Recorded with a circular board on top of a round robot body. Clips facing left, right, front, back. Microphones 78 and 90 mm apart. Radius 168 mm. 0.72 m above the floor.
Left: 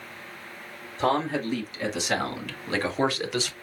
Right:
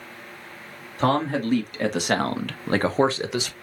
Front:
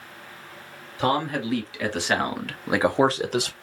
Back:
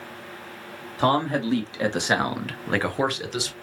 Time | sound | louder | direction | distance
1.0 | a man speaking | right 3 dB, back 2 dB | 125° right | 2.5 m